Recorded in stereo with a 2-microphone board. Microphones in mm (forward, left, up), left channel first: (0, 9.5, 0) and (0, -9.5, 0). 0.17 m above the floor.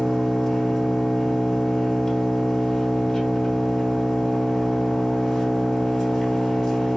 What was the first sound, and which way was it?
An engine running, 20° left (ahead or behind).